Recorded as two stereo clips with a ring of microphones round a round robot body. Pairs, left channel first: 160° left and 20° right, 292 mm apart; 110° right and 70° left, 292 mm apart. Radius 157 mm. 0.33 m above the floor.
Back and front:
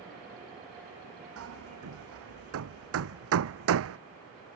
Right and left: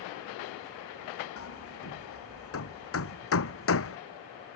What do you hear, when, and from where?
1.4 s hammering: 65° right